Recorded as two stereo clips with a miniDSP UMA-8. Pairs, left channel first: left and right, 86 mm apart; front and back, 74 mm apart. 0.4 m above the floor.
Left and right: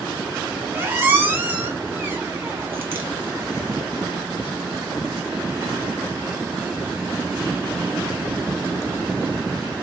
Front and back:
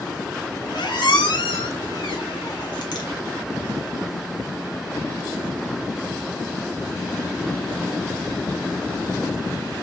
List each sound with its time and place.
0.7 s a squeak: 25° right, 0.7 m